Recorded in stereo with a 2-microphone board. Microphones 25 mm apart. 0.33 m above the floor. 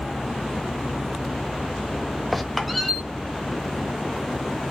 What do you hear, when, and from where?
2.3 s a squeak: centre (ahead or behind), 0.7 m